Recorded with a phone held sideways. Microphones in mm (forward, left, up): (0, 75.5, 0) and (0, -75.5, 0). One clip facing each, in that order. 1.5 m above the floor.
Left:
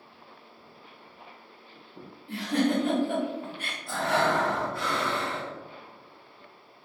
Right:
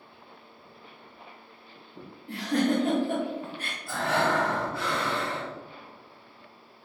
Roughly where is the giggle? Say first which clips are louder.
Even; right.